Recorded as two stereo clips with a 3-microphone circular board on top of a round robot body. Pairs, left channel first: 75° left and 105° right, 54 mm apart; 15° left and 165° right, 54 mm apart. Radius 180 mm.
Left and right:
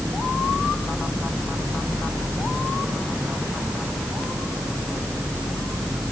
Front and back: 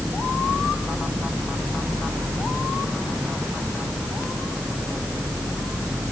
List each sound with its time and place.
Only background noise.